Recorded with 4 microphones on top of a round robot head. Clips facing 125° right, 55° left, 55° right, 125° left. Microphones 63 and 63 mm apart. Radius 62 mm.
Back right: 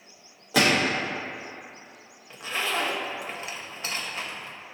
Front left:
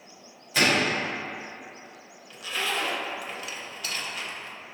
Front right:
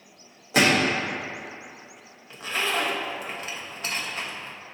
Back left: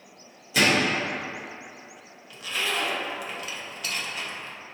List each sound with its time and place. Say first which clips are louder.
0.5 s a gunshot: back right 1 dB, front right 1 dB; 105° right, 0.7 m
2.3 s a zipper: back right 1 dB, front right 2 dB; 85° right, 0.6 m